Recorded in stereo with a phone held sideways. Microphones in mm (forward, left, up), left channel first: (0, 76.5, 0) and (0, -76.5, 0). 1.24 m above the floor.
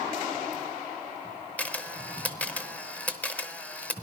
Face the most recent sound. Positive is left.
turn(degrees=10)  # may be behind; listen again after turning